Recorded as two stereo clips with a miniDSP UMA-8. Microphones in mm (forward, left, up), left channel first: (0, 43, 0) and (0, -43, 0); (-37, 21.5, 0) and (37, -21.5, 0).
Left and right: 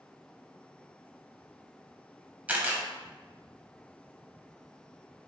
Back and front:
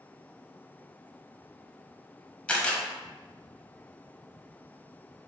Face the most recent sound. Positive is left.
turn(degrees=-150)